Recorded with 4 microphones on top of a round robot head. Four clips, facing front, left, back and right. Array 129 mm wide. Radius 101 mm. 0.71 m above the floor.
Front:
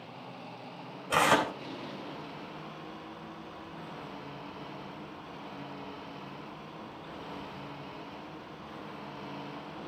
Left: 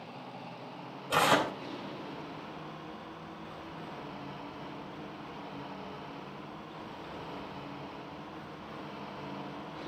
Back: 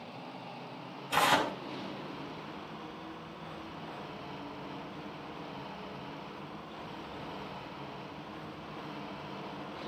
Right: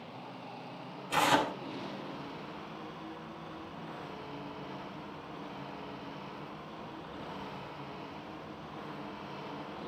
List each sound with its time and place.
1.1 s tearing paper: 35° left, 4 m